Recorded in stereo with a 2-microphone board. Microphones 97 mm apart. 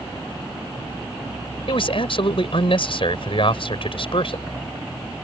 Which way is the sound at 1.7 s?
60° left (ahead or behind).